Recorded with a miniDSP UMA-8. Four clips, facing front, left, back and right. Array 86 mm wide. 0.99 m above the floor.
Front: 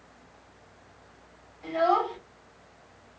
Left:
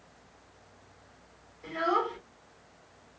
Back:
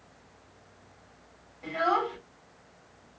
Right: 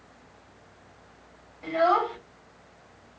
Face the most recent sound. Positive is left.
turn(degrees=-110)